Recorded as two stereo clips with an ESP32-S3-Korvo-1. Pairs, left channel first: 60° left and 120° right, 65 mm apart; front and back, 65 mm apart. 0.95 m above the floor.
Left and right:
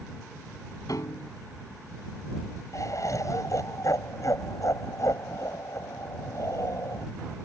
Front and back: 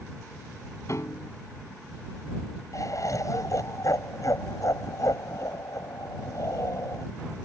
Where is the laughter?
30° left.